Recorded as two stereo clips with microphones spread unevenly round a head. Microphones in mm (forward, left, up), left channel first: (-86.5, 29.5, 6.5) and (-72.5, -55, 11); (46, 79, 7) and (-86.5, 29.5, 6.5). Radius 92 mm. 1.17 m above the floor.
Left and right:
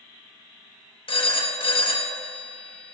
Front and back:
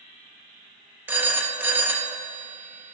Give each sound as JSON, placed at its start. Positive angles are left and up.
{"t": 1.1, "sound": "a phone ringing", "azimuth_deg": 120, "distance_m": 0.9}